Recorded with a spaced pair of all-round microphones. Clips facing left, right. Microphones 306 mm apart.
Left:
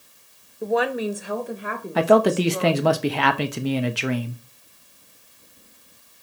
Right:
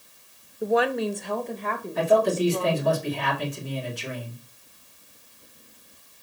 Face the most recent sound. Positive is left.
turn(degrees=85)